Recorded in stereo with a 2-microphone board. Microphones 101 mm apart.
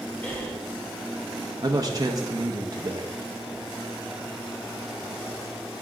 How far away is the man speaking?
About 0.7 m.